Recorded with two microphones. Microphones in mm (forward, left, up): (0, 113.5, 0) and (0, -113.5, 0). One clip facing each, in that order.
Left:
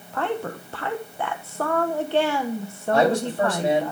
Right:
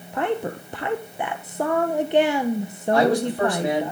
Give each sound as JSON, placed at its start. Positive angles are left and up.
{"t": 0.1, "sound": "a woman speaking", "side_deg": -15, "distance_m": 0.9}
{"t": 2.9, "sound": "a man speaking", "side_deg": 25, "distance_m": 8.0}